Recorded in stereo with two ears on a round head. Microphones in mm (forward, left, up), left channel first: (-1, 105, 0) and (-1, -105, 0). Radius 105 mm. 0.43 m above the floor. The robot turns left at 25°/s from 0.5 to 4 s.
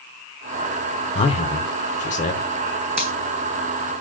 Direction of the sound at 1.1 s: 25° left (ahead or behind).